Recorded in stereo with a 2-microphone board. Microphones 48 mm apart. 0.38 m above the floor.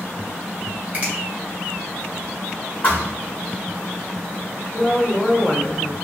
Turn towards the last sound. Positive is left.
turn(degrees=35)  # may be behind; listen again after turning